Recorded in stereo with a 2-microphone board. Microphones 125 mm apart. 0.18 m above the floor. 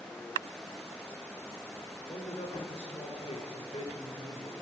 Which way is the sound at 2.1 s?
60° left (ahead or behind).